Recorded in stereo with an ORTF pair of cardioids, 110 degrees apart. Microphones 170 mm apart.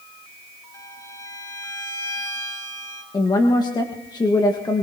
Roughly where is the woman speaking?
Ahead left.